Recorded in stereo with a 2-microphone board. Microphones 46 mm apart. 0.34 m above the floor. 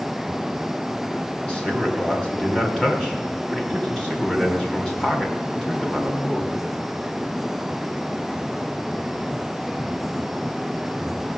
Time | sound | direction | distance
1.5 | a man speaking | 25° left (ahead or behind) | 2.5 m